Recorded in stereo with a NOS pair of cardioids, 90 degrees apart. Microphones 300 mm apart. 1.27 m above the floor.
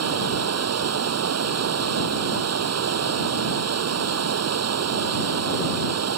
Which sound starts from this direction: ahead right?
Running water, at 0.0 s.